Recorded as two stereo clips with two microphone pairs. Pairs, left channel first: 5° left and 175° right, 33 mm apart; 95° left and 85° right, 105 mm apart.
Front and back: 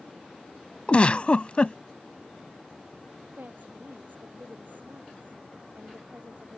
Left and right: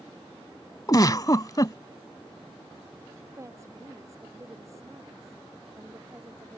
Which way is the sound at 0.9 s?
50° left.